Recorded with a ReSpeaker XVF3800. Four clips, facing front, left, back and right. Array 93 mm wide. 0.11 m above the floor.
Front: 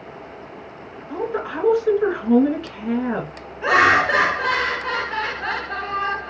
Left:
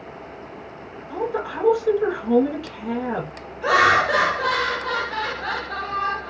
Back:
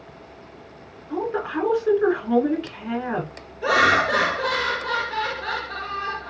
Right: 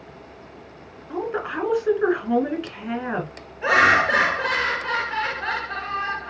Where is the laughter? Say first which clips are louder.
Even, front 3 dB; 35° right, 1.3 m.